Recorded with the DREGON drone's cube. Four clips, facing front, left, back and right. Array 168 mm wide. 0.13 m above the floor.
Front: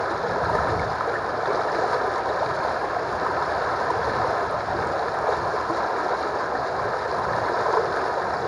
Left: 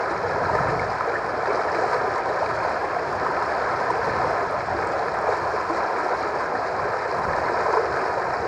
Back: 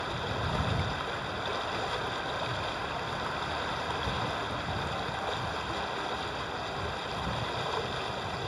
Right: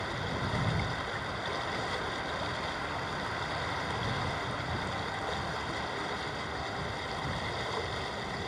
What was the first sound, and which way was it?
Running water, 50° left.